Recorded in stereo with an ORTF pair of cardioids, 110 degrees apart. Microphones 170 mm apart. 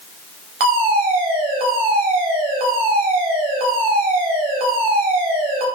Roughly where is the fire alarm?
Ahead right.